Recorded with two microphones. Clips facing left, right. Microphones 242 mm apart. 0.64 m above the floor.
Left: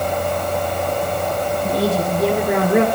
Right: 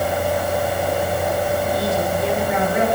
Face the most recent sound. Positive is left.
turn(degrees=70)  # may be behind; listen again after turning